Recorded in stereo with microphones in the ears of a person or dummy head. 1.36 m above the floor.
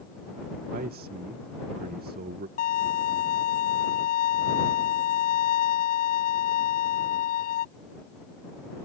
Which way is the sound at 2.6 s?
45° left (ahead or behind).